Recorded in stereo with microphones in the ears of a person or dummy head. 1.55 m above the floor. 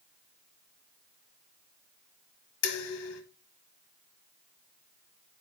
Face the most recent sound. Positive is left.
turn(degrees=65)  # may be behind; listen again after turning